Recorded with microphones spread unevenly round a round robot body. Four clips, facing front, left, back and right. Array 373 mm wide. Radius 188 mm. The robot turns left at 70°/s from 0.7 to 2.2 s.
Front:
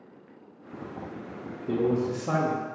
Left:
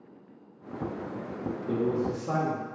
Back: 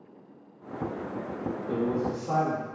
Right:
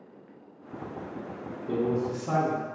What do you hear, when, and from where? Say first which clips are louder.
1.7 s a man speaking: right 1 dB, front 4 dB; 25° left, 0.8 m; by 2.6 s 10° right, 0.8 m